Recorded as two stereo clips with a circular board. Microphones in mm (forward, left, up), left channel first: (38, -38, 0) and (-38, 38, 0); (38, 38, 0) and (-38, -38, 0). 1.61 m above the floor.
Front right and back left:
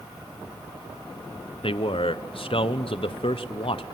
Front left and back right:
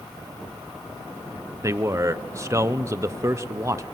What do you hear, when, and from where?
1.6 s a man speaking: 75° right, 1.0 m